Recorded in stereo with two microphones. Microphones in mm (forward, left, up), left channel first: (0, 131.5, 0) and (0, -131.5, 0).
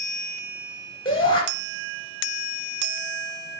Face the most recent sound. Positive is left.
turn(degrees=20)  # may be behind; listen again after turning